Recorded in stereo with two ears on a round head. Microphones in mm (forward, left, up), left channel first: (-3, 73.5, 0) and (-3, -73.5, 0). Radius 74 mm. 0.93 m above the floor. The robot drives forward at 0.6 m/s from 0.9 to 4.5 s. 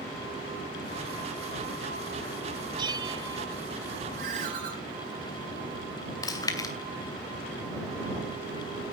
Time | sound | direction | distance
2.8 | a bell | 25° right (ahead or behind) | 0.8 m
4.2 | a ringtone | 50° right (ahead or behind) | 4 m
6.2 | chewing | 25° left (ahead or behind) | 2.5 m